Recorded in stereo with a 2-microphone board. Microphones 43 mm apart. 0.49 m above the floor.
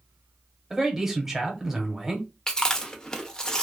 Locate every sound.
0.7 s a man speaking: 5° right (ahead or behind), 1.2 m
2.5 s chewing: 15° left (ahead or behind), 0.6 m